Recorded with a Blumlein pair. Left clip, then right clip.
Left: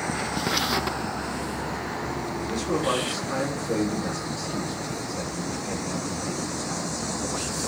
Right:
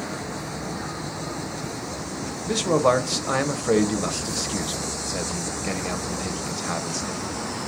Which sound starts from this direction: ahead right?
A man speaking, at 2.5 s.